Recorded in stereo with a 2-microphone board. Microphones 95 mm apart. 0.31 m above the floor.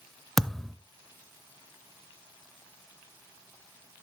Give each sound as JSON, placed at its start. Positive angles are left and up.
{"t": 0.4, "sound": "a thud", "side_deg": 5, "distance_m": 0.5}